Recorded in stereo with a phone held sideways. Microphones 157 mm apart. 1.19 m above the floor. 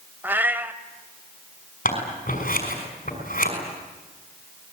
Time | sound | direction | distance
0.2 | a cat meowing | 10° right (ahead or behind) | 1.1 m
1.9 | scissors | 60° left (ahead or behind) | 6 m